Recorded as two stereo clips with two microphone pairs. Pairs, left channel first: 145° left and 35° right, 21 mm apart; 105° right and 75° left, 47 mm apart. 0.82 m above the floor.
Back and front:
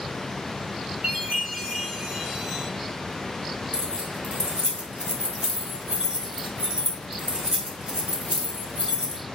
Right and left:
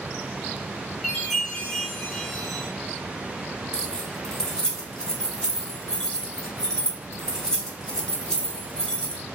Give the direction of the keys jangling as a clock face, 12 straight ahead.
1 o'clock.